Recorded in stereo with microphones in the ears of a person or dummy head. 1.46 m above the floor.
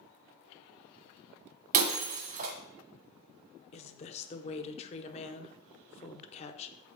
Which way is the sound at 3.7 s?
35° left (ahead or behind).